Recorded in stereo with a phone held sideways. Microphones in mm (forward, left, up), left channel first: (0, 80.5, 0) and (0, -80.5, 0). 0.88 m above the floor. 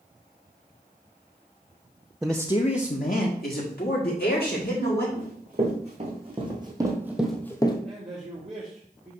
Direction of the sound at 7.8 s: 35° right (ahead or behind).